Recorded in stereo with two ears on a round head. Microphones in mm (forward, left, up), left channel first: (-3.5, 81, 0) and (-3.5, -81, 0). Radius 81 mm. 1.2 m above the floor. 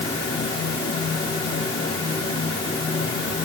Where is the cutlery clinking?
I don't hear cutlery clinking.